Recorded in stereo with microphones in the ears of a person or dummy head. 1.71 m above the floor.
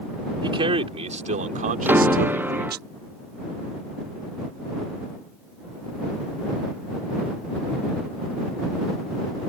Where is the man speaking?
30° right (ahead or behind); by 2.9 s 60° right (ahead or behind).